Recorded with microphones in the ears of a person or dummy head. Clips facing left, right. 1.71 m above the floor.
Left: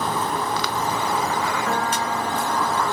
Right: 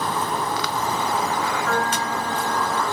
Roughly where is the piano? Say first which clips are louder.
Even; left.